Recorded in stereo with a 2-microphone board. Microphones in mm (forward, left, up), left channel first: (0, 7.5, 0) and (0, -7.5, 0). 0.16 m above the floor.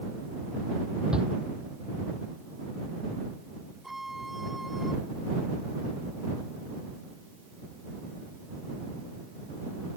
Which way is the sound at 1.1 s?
70° right (ahead or behind).